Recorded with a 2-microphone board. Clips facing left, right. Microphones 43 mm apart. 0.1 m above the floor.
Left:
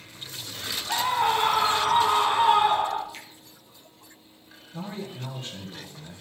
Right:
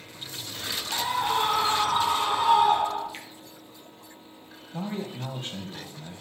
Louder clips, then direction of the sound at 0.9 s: Left 3 dB; 45° left (ahead or behind).